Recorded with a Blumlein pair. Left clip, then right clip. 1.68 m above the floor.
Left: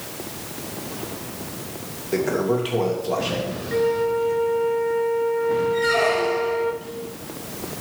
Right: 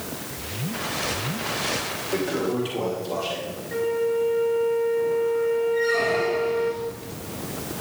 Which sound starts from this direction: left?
A toilet flushing, at 2.1 s.